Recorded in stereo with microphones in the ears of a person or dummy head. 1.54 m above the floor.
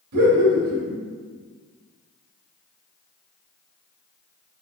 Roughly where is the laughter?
Right.